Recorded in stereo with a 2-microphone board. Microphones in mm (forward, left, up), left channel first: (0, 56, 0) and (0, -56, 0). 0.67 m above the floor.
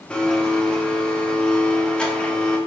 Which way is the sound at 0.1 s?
10° left (ahead or behind).